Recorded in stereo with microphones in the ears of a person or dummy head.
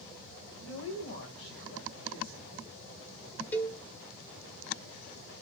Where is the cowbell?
10° left (ahead or behind), 1.2 m.